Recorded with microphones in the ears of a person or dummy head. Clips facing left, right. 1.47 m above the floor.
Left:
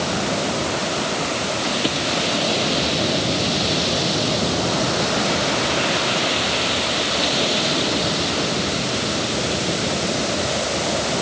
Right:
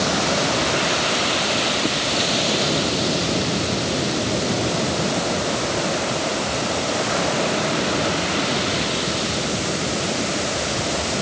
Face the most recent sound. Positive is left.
No sound to turn to.